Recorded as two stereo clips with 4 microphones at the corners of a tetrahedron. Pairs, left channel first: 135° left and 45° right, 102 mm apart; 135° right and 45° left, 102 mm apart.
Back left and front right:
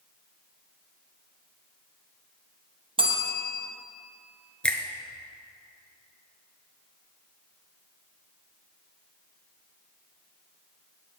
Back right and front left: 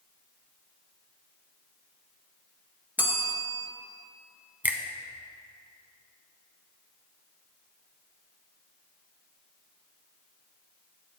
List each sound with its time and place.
3.0 s a bell: 25° right, 1.4 m
4.6 s a finger snap: 75° left, 0.8 m